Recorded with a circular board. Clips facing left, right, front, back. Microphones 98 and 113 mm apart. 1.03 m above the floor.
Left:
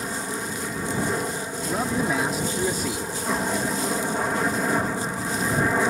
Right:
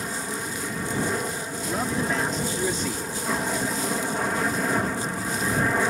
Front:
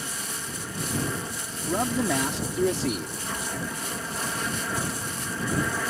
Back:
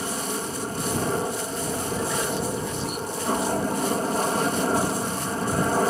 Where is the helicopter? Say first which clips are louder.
Left 1 dB, back 8 dB; 170° left.